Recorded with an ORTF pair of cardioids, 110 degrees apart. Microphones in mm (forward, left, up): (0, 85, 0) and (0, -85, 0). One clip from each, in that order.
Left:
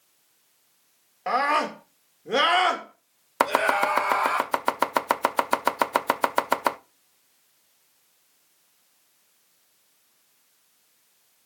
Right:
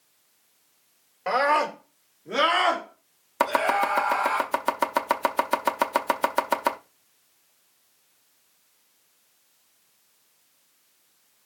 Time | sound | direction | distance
1.3 | a scream | straight ahead | 2 m
3.4 | chopping | 20° left | 0.6 m